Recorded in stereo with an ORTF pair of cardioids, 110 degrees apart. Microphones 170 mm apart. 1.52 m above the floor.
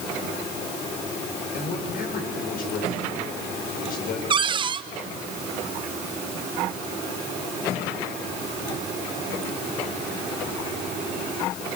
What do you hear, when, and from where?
1.5 s a man speaking: 60° left, 7 m
4.3 s a cupboard door: 30° right, 0.9 m